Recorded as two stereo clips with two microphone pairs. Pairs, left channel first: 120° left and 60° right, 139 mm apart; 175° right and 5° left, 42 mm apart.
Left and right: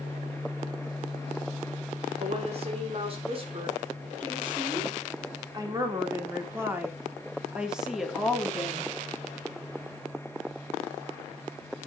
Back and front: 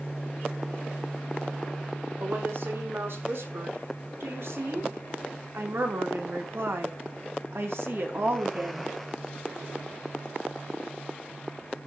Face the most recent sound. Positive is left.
turn(degrees=40)